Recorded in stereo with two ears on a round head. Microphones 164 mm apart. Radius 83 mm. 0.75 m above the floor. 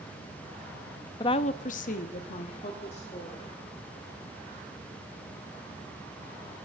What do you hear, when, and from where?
1.2 s a woman speaking: 25° left (ahead or behind), 0.7 m; by 3.5 s 30° left (ahead or behind), 2.5 m